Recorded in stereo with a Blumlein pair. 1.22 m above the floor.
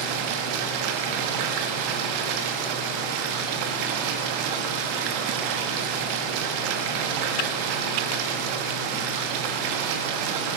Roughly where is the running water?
Ahead right.